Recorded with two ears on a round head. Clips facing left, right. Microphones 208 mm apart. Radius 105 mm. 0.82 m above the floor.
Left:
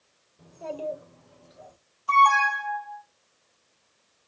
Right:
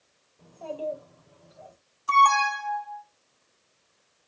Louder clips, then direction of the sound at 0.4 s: Even; 20° left (ahead or behind).